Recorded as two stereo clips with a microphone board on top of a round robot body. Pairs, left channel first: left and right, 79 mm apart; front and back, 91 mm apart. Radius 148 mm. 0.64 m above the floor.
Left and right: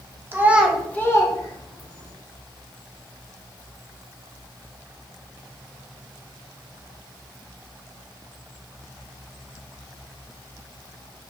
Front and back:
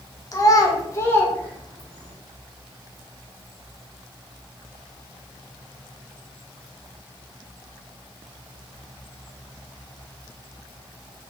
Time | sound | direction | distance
0.3 | a child speaking | 35° right | 0.8 m